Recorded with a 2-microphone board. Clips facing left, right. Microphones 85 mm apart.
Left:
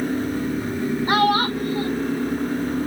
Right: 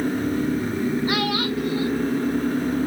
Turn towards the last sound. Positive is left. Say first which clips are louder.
# left 5 dB
turn(degrees=40)  # may be behind; listen again after turning